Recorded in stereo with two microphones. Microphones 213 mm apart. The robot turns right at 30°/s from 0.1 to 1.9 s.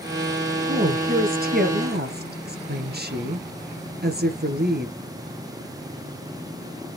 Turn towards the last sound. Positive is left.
turn(degrees=-95)